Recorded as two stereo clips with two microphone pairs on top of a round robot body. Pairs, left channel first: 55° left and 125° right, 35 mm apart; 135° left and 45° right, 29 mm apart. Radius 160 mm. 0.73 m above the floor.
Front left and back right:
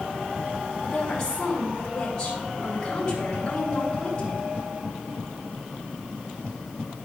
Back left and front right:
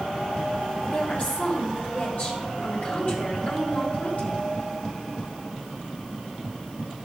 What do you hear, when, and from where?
0.8 s a woman speaking: 130° left, 4 m